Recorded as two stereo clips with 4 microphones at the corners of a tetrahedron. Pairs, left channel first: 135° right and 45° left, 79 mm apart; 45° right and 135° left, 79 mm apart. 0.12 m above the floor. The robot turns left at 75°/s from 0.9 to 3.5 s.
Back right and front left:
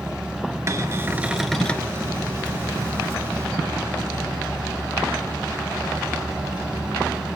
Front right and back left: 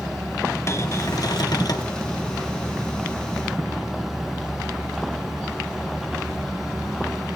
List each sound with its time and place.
0.7 s a cupboard door: straight ahead, 1.6 m; by 1.9 s 75° right, 1.6 m